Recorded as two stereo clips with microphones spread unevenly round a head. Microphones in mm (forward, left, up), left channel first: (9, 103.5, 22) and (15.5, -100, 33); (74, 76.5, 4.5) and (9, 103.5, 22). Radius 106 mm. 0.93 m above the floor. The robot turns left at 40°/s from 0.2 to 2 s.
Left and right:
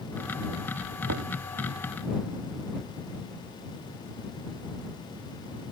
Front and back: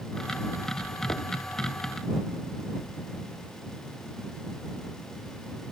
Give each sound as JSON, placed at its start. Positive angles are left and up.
{"t": 1.1, "sound": "knocking", "azimuth_deg": -80}